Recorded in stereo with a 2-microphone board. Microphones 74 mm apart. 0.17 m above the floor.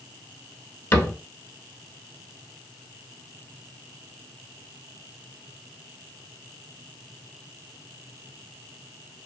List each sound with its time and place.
0.9 s a cupboard door: 35° left (ahead or behind), 0.6 m